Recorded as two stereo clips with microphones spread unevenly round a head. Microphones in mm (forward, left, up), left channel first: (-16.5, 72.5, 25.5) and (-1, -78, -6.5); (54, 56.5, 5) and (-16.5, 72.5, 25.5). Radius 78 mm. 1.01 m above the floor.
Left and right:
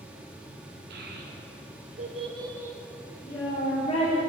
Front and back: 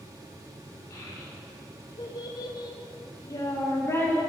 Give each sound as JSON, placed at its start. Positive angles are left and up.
{"t": 0.9, "sound": "a child speaking", "azimuth_deg": -75, "distance_m": 1.6}